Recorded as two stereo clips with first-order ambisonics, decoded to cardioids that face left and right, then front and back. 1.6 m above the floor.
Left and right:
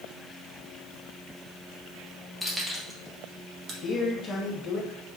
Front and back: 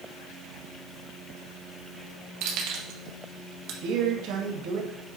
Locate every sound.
2.4 s keys jangling: 175° right, 1.9 m; by 3.7 s 150° right, 1.6 m
3.8 s a man speaking: 160° left, 2 m